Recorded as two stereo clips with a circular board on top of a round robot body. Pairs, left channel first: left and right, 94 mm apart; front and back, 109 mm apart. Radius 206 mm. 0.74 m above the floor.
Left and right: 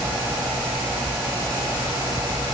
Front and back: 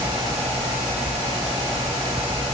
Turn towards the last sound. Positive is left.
No sound to turn to.